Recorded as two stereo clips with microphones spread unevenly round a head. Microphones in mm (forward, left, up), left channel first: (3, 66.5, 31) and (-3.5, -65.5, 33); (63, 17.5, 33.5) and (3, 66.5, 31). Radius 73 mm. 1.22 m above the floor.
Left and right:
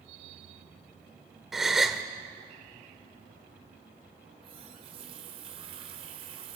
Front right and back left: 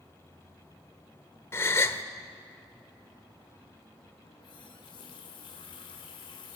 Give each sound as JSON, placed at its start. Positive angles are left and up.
{"t": 1.5, "sound": "a gasp", "azimuth_deg": -5, "distance_m": 1.0}
{"t": 4.2, "sound": "a running tap", "azimuth_deg": -45, "distance_m": 3.0}